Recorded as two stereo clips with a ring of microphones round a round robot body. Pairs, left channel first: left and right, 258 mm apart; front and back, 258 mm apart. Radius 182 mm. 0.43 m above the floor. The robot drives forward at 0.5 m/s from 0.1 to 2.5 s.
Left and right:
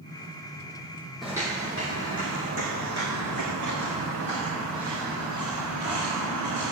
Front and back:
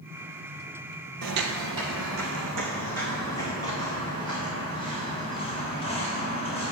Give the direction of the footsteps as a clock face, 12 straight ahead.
6 o'clock.